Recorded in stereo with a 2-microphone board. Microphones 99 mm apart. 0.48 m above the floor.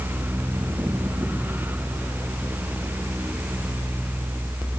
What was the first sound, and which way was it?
Only background noise.